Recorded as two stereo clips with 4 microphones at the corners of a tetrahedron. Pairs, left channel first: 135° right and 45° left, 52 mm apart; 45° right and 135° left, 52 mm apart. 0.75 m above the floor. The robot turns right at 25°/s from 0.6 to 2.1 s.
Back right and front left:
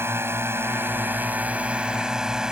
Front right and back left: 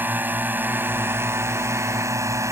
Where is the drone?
85° left; by 2.5 s 120° left.